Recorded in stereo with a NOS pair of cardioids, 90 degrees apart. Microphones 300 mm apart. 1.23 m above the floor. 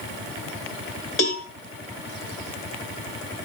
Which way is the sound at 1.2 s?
45° left.